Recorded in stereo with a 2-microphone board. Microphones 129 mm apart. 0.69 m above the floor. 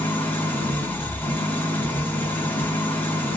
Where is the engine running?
15° left (ahead or behind), 2.5 m.